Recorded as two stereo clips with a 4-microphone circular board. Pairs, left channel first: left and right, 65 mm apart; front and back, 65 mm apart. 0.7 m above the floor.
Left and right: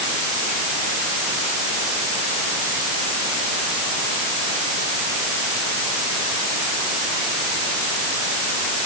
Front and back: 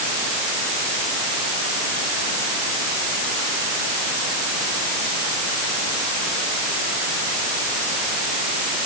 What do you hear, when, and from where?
Only background noise.